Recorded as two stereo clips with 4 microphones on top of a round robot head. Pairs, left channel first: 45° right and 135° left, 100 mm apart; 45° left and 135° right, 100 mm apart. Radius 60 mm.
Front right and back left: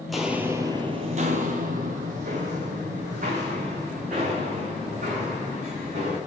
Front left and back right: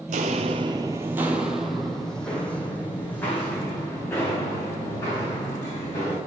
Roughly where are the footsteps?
Behind right.